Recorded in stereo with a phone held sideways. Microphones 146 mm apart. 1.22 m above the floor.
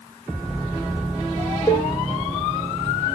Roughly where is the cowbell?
Left.